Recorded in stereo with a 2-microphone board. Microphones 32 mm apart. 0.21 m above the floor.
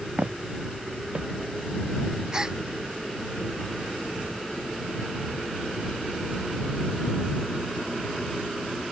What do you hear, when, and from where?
0.2 s footsteps: 50° right (ahead or behind)
2.3 s a gasp: 25° right (ahead or behind)